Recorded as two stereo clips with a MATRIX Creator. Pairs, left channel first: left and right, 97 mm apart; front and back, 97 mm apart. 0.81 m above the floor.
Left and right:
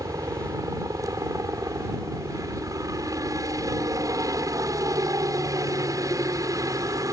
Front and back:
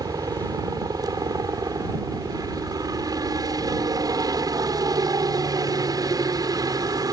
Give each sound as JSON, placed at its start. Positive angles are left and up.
{"t": 0.0, "sound": "a helicopter", "azimuth_deg": -135}